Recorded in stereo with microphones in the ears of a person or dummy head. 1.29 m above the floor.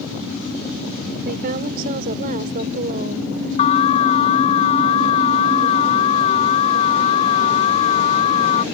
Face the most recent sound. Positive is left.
turn(degrees=35)  # may be behind; listen again after turning